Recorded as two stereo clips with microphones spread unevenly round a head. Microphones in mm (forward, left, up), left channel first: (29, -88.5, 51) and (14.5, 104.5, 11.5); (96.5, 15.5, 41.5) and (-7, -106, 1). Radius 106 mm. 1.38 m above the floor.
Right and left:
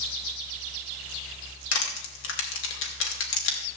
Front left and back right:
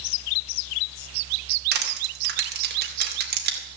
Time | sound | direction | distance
1.7 | crushing | 110° right | 2 m